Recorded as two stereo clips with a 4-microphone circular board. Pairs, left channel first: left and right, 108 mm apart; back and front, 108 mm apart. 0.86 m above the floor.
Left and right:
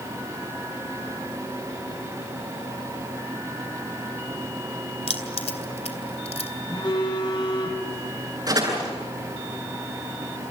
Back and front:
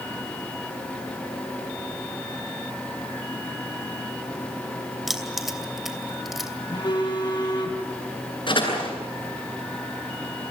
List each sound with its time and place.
5.1 s keys jangling: 90° left, 2.5 m
6.7 s a phone buzzing: 135° left, 6.5 m
8.5 s a door slam: 140° right, 9 m